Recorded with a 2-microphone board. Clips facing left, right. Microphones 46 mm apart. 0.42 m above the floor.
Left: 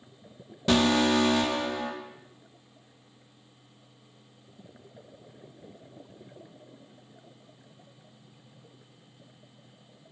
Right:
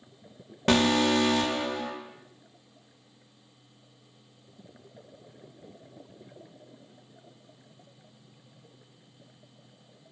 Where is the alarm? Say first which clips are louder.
Even; 50° right (ahead or behind), 0.6 m.